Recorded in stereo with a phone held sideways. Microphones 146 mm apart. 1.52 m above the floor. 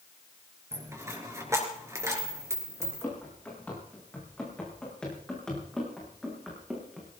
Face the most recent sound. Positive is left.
turn(degrees=-5)  # may be behind; listen again after turning